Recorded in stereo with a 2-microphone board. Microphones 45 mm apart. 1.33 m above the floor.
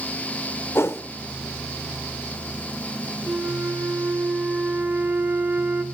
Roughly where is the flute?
Right.